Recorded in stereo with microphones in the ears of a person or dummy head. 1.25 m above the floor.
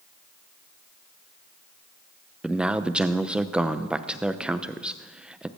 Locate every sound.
2.4 s a man speaking: centre (ahead or behind), 0.6 m